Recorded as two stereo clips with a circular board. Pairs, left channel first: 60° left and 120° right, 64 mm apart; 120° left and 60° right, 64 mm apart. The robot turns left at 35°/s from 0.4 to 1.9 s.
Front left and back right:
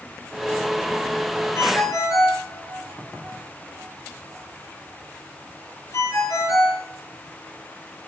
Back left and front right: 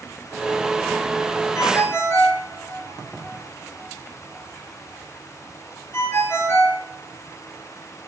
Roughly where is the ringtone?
Left.